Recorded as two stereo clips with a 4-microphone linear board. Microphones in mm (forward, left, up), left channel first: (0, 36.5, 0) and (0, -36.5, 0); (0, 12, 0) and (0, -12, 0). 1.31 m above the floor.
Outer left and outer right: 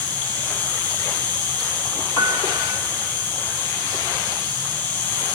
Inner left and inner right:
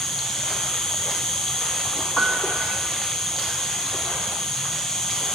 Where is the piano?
60° left (ahead or behind), 2.5 m.